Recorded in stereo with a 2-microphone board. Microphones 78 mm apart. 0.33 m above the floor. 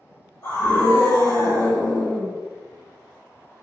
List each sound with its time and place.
0.4 s a scream: 30° left (ahead or behind), 1.6 m